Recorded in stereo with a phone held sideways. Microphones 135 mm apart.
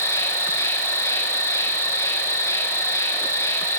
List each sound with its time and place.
0.0 s an insect: 20° left (ahead or behind), 0.7 m